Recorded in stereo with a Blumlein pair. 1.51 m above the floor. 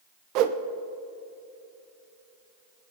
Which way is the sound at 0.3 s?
40° right.